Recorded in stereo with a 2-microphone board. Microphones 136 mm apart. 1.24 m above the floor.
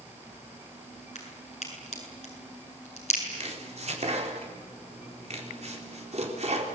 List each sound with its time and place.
1.1 s a crack: 55° left (ahead or behind), 7 m
3.3 s chopping: 55° right (ahead or behind), 4 m